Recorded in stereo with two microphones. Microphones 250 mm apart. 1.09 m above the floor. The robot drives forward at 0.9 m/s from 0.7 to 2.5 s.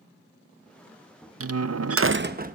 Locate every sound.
1.4 s a door slam: 65° right (ahead or behind), 0.6 m; by 2.5 s 35° right (ahead or behind), 0.9 m